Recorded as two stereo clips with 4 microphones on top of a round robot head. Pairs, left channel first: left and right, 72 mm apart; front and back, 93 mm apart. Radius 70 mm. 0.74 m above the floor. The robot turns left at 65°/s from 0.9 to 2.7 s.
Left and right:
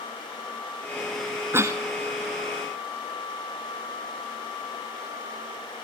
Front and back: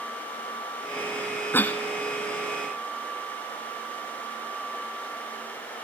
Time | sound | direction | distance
1.5 | a cough | 60° right | 1.1 m